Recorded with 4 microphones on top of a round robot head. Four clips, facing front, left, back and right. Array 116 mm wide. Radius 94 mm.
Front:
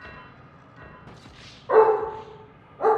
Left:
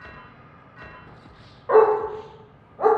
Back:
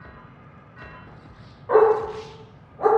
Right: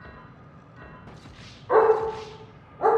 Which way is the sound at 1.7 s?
100° left.